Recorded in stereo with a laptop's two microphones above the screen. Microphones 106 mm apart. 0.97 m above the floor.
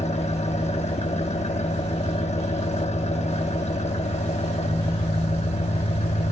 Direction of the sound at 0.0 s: 75° left (ahead or behind).